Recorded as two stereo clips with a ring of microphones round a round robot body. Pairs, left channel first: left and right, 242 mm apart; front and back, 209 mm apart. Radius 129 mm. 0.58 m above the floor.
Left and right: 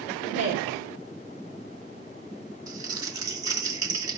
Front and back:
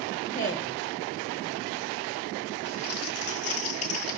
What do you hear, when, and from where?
0.2 s a woman speaking: 60° right, 2.5 m
2.7 s crumpling: 15° right, 2 m